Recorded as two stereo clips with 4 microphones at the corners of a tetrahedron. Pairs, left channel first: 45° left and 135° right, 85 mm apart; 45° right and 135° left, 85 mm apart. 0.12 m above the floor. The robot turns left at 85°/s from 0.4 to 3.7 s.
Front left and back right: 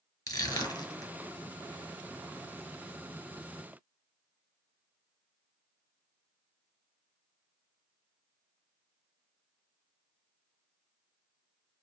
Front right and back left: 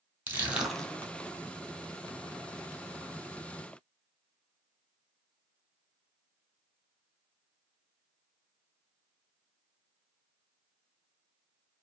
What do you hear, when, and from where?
0.3 s crushing: 75° left, 1.3 m; by 1.1 s 15° left, 1.3 m